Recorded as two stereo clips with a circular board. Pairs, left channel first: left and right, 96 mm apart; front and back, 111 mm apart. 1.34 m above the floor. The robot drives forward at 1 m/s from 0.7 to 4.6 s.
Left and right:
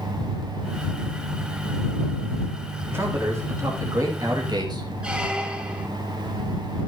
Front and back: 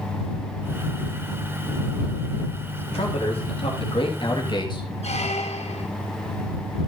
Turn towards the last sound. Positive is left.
turn(degrees=-10)